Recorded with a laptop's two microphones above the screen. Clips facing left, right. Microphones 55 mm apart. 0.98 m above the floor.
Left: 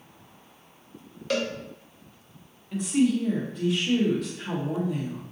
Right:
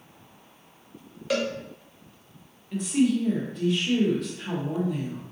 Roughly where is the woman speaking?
Centre.